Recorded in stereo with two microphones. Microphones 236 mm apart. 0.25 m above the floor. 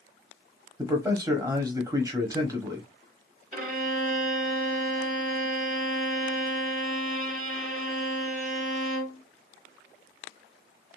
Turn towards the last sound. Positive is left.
turn(degrees=-35)  # may be behind; listen again after turning